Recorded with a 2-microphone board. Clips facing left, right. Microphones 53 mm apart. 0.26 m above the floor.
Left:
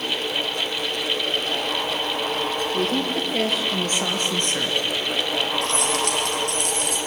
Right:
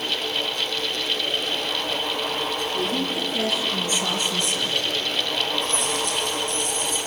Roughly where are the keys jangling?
Left.